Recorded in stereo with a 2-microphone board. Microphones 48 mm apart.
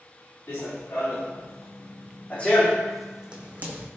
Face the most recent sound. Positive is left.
turn(degrees=-45)  # may be behind; listen again after turning